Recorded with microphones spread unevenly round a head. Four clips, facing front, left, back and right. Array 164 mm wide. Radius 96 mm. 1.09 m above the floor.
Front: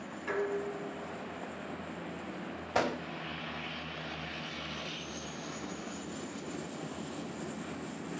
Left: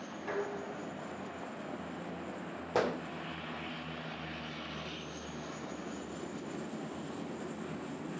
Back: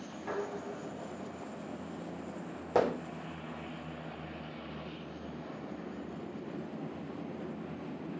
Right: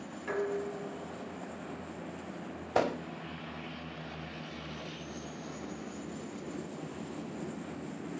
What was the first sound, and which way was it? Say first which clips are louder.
Dishes clattering: right 4 dB, front 4 dB; 160° left.